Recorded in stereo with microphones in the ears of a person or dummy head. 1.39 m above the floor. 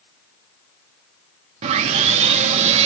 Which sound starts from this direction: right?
Sawing, at 1.6 s.